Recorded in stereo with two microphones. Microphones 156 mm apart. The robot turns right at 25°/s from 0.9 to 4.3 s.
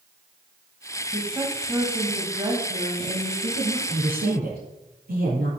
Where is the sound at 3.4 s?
65° right (ahead or behind), 6 m; by 5.5 s 80° right, 6 m.